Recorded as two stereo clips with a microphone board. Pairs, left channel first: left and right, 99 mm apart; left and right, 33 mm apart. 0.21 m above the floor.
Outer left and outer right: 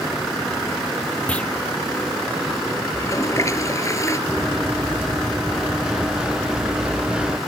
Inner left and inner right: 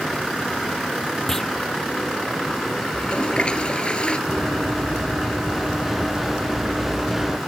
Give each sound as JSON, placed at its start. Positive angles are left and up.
{"t": 1.3, "sound": "a clunk", "side_deg": 15}
{"t": 2.9, "sound": "a toilet flushing", "side_deg": 30}
{"t": 4.3, "sound": "running footsteps", "side_deg": -5}